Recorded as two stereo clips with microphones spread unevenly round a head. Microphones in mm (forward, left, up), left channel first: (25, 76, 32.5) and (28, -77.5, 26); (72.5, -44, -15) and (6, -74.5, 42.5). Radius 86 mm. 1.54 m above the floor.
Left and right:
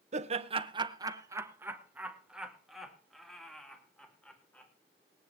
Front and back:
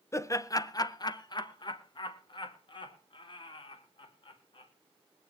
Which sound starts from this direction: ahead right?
Laughter, at 0.1 s.